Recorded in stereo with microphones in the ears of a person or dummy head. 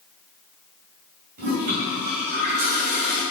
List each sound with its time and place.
1.4 s a toilet flushing: 50° right (ahead or behind), 2 m